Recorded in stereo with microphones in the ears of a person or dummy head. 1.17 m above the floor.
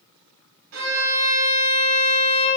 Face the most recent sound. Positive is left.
turn(degrees=-55)  # may be behind; listen again after turning